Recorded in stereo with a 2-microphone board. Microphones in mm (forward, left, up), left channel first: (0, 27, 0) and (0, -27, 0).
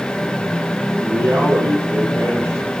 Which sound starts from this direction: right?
A man speaking, at 1.0 s.